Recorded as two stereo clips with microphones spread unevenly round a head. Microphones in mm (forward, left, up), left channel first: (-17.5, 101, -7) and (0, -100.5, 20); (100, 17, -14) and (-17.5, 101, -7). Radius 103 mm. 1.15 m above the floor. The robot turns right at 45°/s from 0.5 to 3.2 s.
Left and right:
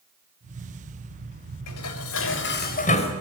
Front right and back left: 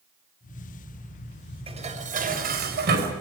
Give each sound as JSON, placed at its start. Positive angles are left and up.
{"t": 1.7, "sound": "dishes clattering", "azimuth_deg": 95, "distance_m": 4.0}